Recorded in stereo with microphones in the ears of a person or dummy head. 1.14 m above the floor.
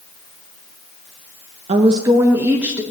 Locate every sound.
1.7 s a woman speaking: 30° right (ahead or behind), 0.5 m; by 2.8 s 5° right (ahead or behind), 1.1 m